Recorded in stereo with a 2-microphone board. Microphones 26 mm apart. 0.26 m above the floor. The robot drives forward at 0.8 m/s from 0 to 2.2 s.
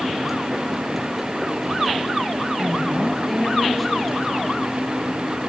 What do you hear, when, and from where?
2.6 s a woman speaking: centre (ahead or behind), 4.5 m